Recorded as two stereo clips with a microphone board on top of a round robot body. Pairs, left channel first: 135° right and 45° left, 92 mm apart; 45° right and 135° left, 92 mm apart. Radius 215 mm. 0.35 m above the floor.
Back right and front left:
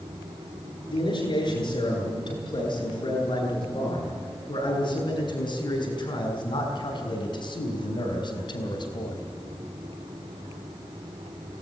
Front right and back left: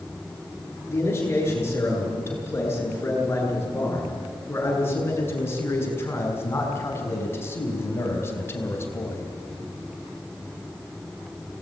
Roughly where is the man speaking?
Right.